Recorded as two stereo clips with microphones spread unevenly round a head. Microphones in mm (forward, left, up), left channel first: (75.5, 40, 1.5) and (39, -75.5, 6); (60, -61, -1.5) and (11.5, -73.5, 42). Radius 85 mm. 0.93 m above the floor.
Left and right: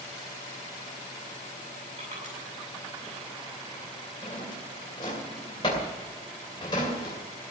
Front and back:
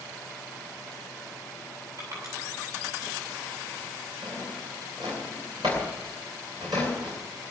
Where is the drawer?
140° left, 2.5 m.